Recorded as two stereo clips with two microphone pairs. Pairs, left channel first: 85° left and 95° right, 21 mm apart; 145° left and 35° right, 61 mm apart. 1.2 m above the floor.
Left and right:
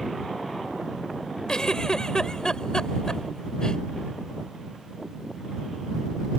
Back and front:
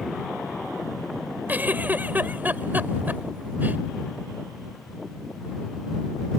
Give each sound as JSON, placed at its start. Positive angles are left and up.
{"t": 1.5, "sound": "a giggle", "azimuth_deg": 25}